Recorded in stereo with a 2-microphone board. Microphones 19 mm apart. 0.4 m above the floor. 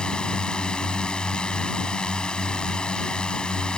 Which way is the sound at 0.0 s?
65° left (ahead or behind).